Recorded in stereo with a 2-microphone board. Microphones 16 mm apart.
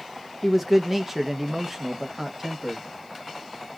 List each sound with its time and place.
0.4 s a man speaking: 5° right (ahead or behind), 0.6 m; by 2.8 s 25° right (ahead or behind), 1.1 m